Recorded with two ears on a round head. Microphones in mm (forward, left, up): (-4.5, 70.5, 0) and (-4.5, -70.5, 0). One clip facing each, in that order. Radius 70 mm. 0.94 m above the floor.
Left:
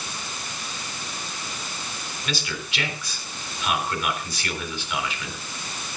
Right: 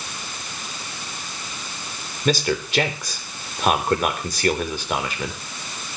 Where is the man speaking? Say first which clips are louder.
Right 12 dB; 35° right (ahead or behind), 3.5 m.